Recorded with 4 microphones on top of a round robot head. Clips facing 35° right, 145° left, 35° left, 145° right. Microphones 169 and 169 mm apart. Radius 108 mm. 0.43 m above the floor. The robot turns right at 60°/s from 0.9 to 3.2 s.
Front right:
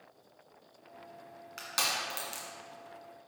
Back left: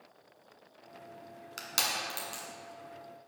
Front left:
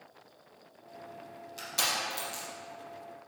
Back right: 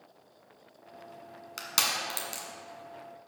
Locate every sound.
1.6 s crushing: 165° right, 1.5 m; by 2.4 s 110° right, 1.5 m